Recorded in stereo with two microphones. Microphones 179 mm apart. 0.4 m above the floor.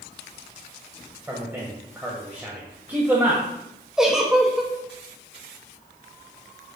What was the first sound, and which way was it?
A man speaking, 10° right (ahead or behind).